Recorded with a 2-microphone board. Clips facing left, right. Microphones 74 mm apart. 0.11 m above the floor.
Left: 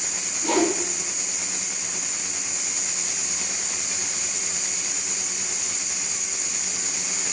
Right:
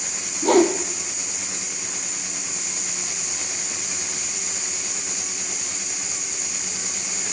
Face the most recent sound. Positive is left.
turn(degrees=-50)  # may be behind; listen again after turning